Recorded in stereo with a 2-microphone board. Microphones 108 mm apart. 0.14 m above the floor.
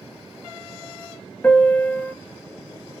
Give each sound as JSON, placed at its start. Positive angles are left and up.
{"t": 1.4, "sound": "a piano", "side_deg": 15, "distance_m": 0.6}